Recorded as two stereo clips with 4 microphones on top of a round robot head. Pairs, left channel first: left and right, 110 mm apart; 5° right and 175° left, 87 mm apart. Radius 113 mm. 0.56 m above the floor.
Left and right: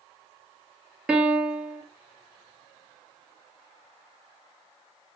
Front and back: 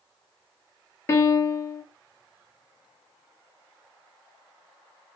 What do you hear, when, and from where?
1.1 s a piano: 20° right, 0.9 m